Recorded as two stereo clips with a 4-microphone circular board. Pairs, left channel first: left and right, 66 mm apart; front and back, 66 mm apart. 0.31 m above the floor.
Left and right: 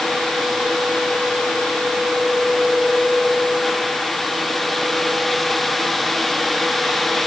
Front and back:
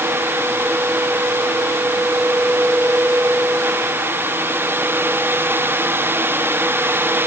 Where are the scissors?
No scissors in this recording.